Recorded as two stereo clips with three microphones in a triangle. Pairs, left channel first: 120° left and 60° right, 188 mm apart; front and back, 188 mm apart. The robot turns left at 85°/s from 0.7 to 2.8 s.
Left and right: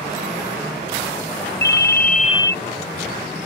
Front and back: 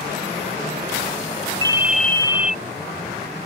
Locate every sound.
1.6 s a ringtone: 120° left; by 2.6 s 40° left